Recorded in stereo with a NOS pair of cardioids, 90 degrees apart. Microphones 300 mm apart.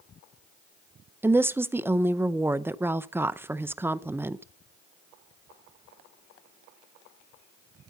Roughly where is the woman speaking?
Ahead.